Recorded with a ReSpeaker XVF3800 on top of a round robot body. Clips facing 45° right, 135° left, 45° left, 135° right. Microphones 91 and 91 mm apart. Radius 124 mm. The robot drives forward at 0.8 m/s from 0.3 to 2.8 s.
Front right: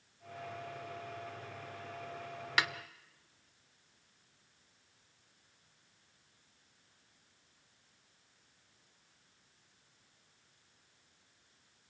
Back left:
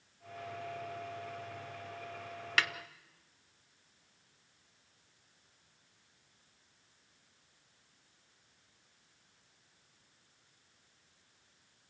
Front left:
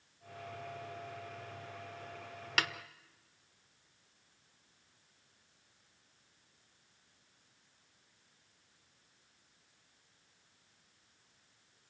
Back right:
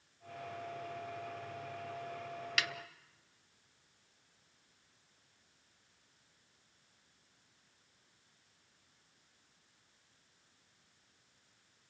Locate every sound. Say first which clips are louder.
2.6 s a snare drum: even, front left 4 dB; 25° left, 1.2 m